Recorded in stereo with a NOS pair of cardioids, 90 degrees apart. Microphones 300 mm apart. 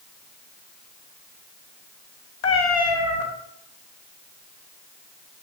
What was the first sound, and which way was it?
A cat meowing, 70° left.